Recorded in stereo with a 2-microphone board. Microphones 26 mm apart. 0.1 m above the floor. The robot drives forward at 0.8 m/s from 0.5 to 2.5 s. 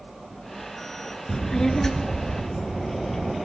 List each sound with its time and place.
1.3 s a child speaking: 20° left (ahead or behind), 0.6 m; by 3.3 s 10° left (ahead or behind), 1.1 m